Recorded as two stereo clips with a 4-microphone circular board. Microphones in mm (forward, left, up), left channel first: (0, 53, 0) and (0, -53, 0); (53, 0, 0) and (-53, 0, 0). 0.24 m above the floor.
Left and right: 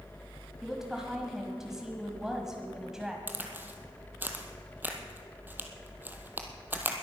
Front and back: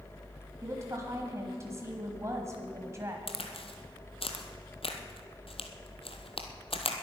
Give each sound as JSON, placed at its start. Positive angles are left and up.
{"t": 0.6, "sound": "a woman speaking", "azimuth_deg": -170, "distance_m": 1.4}
{"t": 3.3, "sound": "a crack", "azimuth_deg": -20, "distance_m": 1.4}